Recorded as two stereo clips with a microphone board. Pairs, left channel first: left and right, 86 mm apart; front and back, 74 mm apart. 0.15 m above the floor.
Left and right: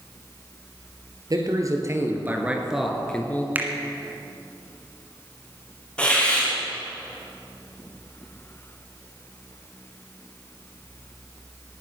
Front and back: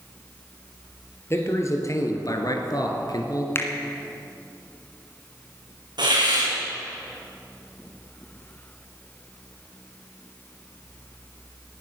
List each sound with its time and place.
1.3 s a man speaking: 50° right, 3 m; by 3.5 s 25° left, 2 m
3.5 s a finger snap: 35° right, 1.7 m
6.0 s a hiss: 170° left, 4 m